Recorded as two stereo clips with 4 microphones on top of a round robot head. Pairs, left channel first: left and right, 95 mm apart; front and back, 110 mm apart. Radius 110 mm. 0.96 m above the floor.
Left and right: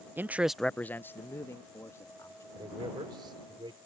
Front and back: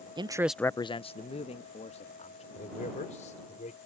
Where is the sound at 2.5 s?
35° right.